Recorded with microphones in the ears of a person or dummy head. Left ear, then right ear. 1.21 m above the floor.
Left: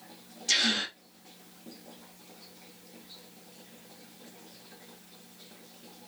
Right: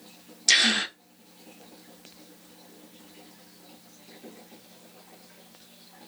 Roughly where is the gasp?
Right.